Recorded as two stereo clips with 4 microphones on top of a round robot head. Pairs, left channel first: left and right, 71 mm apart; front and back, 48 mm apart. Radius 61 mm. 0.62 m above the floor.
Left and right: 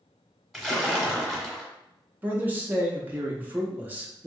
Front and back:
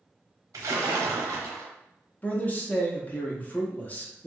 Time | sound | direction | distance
0.5 | a splash | straight behind | 0.9 m
2.2 | a man speaking | 35° right | 0.8 m